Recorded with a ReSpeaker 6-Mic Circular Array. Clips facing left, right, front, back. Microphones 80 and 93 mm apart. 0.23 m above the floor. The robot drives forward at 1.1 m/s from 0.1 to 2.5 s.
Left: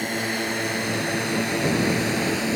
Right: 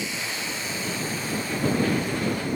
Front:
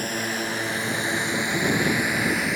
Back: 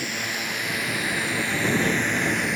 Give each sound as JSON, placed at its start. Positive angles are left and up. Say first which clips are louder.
{"t": 0.0, "sound": "a drone", "louder": "left 6 dB, front 3 dB", "azimuth_deg": 50}